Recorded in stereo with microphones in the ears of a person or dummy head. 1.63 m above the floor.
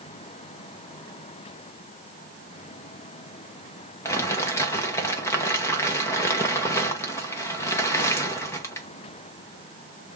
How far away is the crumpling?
About 0.7 m.